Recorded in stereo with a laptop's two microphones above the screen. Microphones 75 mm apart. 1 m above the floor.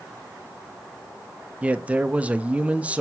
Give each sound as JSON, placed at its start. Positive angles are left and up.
{"t": 1.6, "sound": "a man speaking", "side_deg": -20, "distance_m": 0.6}